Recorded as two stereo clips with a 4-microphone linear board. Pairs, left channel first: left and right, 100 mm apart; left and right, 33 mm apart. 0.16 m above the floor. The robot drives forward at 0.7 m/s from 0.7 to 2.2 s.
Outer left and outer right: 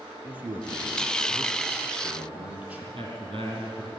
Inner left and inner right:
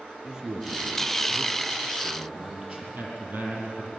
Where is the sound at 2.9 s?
55° right (ahead or behind), 6 m.